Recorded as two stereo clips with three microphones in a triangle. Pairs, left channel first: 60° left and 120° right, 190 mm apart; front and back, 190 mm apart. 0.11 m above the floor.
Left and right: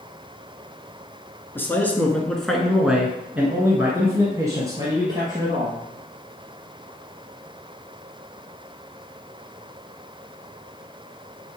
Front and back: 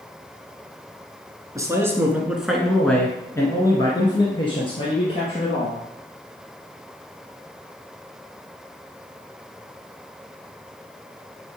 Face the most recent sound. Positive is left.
turn(degrees=-50)